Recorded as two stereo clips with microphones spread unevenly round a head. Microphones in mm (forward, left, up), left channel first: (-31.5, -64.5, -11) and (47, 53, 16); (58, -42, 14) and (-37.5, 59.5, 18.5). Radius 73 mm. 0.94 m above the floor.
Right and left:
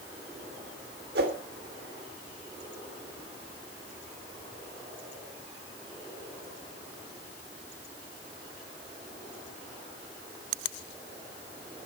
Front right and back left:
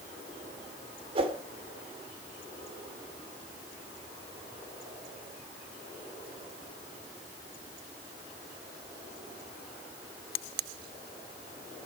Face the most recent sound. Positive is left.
turn(degrees=80)